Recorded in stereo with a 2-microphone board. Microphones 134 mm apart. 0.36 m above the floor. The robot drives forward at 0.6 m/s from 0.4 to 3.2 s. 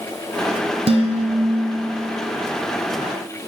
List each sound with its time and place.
0.9 s dishes clattering: 45° right (ahead or behind), 2.5 m; by 1.7 s 55° right (ahead or behind), 2 m